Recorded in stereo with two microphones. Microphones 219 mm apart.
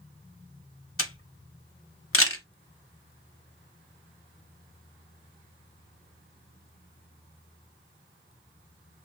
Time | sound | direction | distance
1.0 | a camera shutter | 75° left (ahead or behind) | 0.7 m